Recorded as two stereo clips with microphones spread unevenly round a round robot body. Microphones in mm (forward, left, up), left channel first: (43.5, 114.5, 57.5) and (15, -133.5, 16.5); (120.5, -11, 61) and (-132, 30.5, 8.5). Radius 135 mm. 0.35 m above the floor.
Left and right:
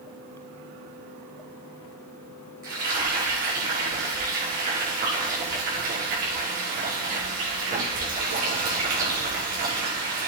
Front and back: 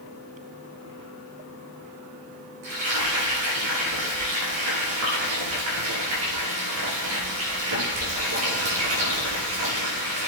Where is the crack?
I don't hear a crack.